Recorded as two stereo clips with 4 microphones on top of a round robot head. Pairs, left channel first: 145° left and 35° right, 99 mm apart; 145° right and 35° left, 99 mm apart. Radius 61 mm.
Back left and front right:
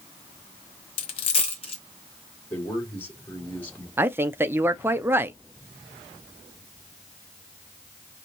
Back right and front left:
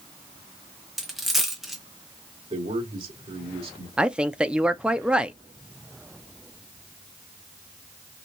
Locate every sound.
1.0 s a dropped coin: 125° left, 0.9 m
2.5 s a man speaking: 70° left, 3 m
4.0 s a woman speaking: 30° right, 0.6 m